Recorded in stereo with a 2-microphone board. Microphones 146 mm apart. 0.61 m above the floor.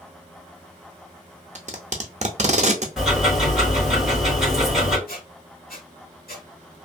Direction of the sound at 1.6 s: 55° right (ahead or behind).